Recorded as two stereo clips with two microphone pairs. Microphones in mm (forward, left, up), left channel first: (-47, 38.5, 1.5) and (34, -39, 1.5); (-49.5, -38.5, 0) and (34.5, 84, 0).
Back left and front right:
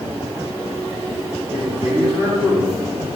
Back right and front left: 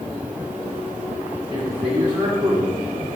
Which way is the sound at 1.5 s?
10° left.